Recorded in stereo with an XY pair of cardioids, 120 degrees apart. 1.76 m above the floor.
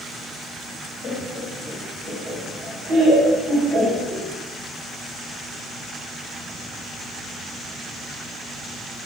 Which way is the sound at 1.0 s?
50° left.